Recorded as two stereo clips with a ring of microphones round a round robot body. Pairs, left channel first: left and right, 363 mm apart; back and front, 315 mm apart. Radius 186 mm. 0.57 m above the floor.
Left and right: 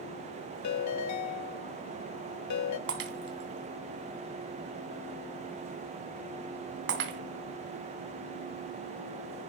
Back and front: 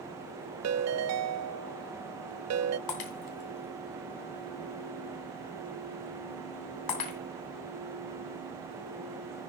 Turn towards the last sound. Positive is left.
turn(degrees=-150)